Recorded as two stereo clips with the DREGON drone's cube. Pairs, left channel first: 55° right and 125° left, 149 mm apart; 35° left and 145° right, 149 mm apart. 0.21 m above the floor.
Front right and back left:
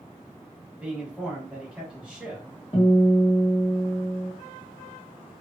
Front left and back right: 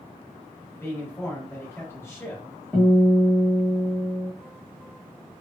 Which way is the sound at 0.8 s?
55° left.